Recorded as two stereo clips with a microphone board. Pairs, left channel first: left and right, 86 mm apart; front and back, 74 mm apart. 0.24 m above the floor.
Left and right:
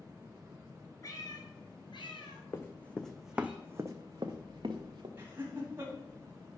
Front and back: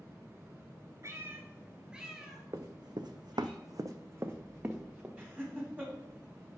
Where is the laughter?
130° right, 1.7 m.